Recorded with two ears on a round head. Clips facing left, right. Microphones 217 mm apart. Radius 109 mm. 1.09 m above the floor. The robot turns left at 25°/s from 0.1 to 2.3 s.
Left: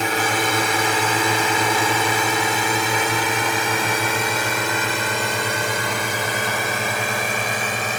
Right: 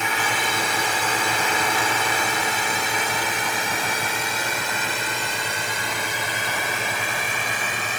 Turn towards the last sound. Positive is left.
turn(degrees=35)  # may be behind; listen again after turning